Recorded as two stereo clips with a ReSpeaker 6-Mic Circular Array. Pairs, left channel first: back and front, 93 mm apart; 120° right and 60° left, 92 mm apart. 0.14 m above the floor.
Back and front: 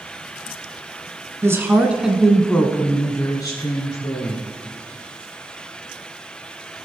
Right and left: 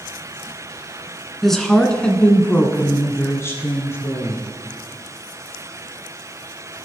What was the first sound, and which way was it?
A woman speaking, 35° right.